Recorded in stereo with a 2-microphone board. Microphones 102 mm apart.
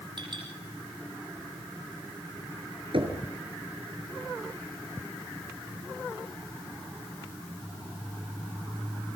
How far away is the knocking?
About 4.5 m.